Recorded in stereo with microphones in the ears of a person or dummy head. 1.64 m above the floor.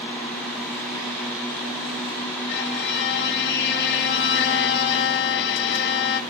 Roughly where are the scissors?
No scissors in this recording.